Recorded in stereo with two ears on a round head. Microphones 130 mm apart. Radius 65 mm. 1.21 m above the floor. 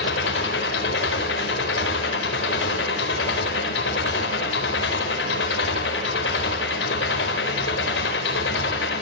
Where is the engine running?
90° left, 4 m.